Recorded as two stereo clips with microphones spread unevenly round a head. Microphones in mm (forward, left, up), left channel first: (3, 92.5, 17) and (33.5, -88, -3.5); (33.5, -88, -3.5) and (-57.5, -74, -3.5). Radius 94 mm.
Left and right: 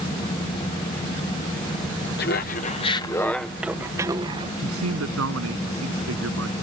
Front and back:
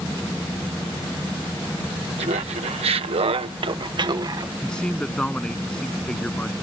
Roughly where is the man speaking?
Right.